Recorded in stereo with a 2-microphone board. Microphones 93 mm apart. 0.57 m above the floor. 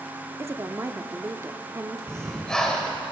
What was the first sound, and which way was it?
A woman speaking, 30° right (ahead or behind).